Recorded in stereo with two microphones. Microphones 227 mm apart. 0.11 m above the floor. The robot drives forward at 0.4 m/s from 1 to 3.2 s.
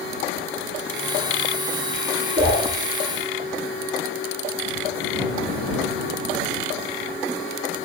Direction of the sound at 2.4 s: 45° right (ahead or behind).